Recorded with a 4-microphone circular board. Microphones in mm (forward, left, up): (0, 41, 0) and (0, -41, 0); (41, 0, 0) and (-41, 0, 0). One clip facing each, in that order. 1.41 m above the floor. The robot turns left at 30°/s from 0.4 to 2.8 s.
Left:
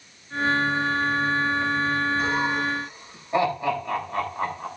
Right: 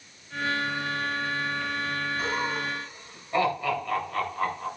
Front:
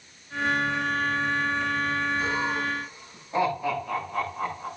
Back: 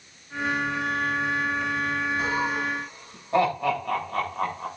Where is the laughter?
Straight behind, 9 m; by 4.7 s 160° left, 9 m.